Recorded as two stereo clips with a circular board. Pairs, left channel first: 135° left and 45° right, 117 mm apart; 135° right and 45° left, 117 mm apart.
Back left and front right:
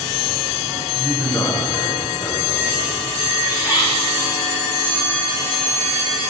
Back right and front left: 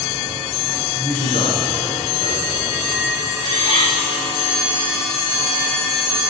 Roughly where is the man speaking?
Behind.